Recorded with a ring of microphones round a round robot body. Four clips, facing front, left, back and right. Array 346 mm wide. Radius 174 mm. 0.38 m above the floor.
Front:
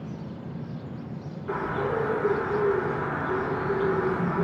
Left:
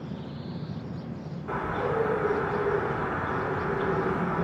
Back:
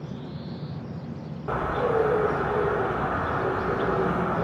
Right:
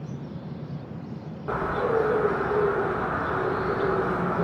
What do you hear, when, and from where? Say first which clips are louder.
1.5 s a bird: right 4 dB, back 3 dB; 145° right, 0.9 m